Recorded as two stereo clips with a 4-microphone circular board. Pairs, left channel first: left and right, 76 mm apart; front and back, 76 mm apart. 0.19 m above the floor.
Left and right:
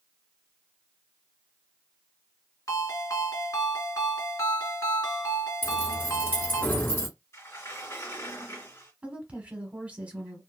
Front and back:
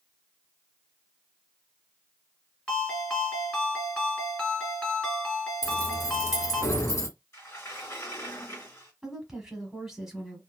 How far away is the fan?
I don't hear a fan.